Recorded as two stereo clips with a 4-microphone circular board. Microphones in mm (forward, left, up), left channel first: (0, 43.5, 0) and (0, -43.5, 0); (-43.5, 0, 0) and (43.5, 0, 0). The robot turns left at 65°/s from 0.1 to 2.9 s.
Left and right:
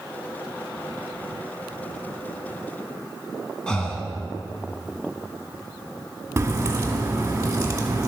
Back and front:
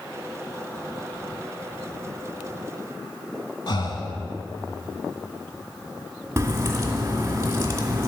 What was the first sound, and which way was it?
Breathing, 170° left.